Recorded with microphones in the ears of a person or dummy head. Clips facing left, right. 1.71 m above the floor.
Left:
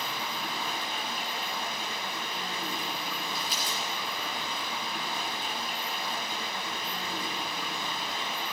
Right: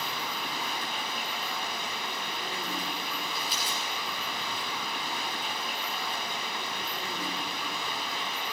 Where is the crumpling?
50° left (ahead or behind), 5 m.